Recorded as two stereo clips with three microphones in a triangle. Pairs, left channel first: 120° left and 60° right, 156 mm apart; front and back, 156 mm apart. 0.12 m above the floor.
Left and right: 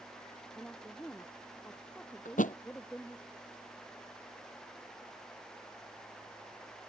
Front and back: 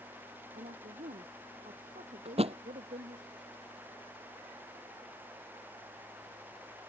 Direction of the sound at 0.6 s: 160° right.